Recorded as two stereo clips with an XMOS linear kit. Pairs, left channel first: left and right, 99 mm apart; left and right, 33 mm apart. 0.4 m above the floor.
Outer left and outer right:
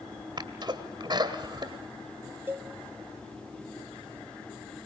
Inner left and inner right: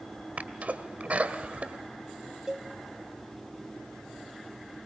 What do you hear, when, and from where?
0.4 s a sneeze: 50° right (ahead or behind), 2 m
2.5 s a cowbell: 20° right (ahead or behind), 0.7 m